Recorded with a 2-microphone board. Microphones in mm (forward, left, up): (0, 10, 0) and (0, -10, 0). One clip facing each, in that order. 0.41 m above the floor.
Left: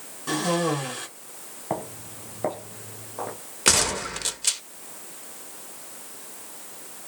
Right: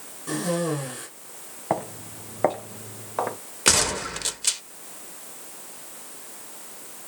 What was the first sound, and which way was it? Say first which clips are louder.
A cough: left 2 dB; 20° left (ahead or behind).